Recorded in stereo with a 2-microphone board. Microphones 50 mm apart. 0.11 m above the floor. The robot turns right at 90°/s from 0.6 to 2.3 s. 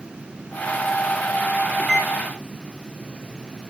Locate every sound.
1.8 s a microwave: 10° left (ahead or behind), 1.8 m; by 2.1 s 30° left (ahead or behind), 1.8 m